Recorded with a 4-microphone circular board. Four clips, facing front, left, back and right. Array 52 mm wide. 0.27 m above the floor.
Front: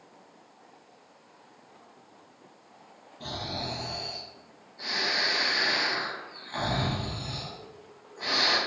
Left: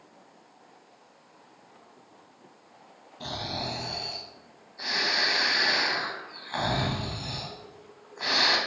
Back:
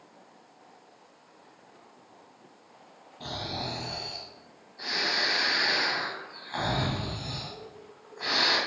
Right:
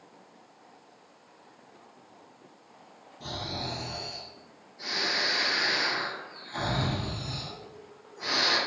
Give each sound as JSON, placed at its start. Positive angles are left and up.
{"t": 3.2, "sound": "snoring", "azimuth_deg": 105, "distance_m": 0.8}